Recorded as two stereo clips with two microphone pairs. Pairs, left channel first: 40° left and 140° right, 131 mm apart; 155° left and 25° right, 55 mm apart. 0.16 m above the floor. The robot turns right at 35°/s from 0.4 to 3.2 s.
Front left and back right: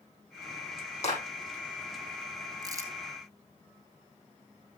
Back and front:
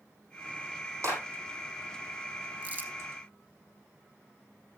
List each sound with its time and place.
1.0 s a clap: 10° left, 6.5 m; by 1.2 s 15° left, 6.5 m
2.6 s crumpling: 85° right, 1.6 m; by 2.9 s 70° right, 1.6 m